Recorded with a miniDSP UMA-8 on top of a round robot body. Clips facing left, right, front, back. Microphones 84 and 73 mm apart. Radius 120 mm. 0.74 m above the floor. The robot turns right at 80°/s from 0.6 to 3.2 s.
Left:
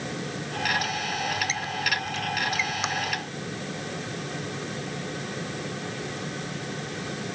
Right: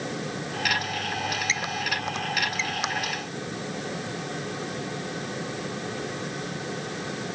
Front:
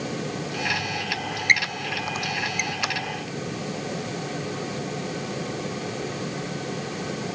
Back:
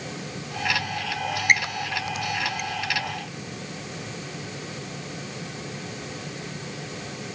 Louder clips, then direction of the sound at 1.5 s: Even, even; 110° right.